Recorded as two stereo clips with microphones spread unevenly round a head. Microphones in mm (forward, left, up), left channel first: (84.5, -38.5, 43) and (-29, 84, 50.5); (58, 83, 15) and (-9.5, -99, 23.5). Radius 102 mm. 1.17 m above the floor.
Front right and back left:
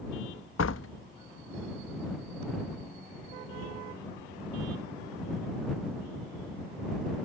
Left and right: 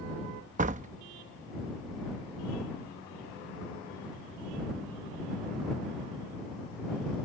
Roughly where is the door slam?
Ahead right.